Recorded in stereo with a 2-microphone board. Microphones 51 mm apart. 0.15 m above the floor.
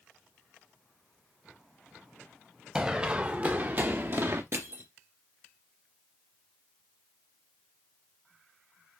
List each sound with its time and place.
2.8 s running footsteps: 15° right (ahead or behind), 1.3 m; by 4.4 s 50° right (ahead or behind), 1.4 m
4.5 s crushing: 60° right (ahead or behind), 2 m